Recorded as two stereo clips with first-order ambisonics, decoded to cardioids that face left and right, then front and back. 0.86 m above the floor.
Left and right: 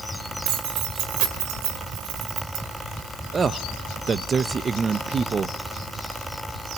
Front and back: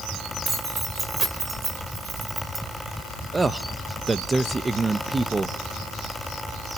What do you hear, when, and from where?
0.5 s keys jangling: 110° right, 2.0 m
3.3 s a man speaking: 115° right, 0.6 m